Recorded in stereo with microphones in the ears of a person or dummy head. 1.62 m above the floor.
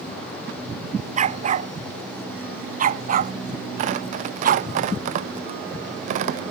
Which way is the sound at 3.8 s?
50° right (ahead or behind).